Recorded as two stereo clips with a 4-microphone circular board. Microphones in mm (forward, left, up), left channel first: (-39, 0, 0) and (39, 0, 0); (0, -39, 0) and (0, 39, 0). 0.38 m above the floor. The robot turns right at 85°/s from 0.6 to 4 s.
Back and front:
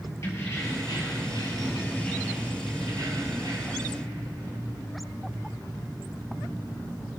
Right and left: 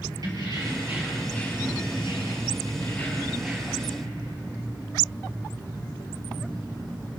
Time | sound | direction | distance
0.2 | keys jangling | 130° left | 6 m